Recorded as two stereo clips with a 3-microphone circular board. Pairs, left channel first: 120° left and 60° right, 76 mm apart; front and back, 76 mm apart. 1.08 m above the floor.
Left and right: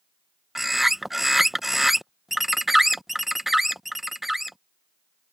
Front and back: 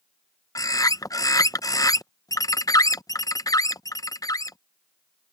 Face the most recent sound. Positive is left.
turn(degrees=30)